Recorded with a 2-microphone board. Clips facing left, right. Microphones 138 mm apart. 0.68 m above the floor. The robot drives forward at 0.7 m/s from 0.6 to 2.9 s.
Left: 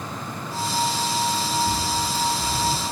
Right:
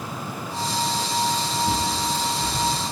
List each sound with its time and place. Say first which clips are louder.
1.6 s a bird: right 1 dB; 5° right (ahead or behind), 6.5 m